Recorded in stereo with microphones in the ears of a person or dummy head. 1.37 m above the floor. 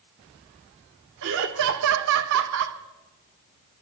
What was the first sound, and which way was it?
Laughter, 60° right (ahead or behind).